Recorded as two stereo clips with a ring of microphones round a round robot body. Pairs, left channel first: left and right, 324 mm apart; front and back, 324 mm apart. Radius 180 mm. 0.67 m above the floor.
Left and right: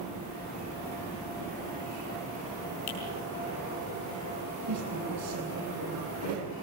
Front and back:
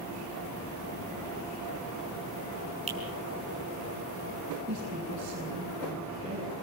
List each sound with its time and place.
2.9 s a finger snap: 110° left, 5 m
4.7 s a woman speaking: 125° right, 7.5 m